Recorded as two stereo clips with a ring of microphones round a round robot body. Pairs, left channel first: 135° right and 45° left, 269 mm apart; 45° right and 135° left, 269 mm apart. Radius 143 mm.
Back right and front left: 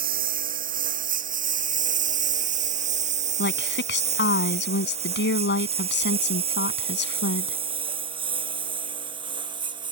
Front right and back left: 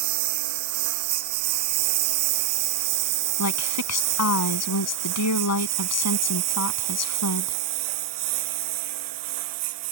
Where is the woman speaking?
80° right.